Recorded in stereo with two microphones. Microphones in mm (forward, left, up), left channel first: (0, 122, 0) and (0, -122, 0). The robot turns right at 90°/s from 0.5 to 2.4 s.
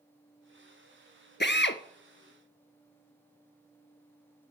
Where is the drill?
45° left (ahead or behind), 0.7 m; by 4.5 s 15° left (ahead or behind), 0.7 m.